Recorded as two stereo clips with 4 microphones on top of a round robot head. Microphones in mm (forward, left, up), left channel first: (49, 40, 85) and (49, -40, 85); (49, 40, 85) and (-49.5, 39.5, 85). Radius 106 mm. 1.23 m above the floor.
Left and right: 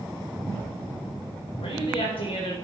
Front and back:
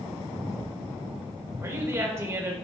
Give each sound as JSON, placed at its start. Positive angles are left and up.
{"t": 1.6, "sound": "a woman speaking", "azimuth_deg": 115, "distance_m": 4.5}